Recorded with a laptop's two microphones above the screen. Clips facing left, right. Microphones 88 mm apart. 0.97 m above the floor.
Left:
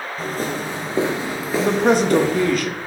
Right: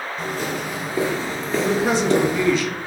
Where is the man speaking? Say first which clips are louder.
Left 3 dB; 55° left (ahead or behind), 0.8 m.